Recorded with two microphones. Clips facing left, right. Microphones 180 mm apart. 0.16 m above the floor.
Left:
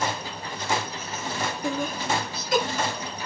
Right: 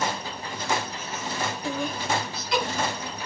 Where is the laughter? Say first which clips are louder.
Left 2 dB; 50° left (ahead or behind), 2 m; by 3.2 s 40° left (ahead or behind), 2 m.